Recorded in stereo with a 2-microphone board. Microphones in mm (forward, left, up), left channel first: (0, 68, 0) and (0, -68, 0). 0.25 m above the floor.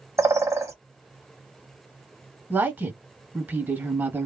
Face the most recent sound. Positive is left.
turn(degrees=-15)  # may be behind; listen again after turning